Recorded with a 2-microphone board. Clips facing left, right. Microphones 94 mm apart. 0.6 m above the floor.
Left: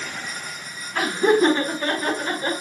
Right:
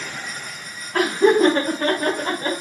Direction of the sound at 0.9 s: 60° right (ahead or behind).